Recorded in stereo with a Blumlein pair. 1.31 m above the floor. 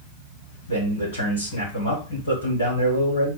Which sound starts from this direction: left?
A man speaking, at 0.7 s.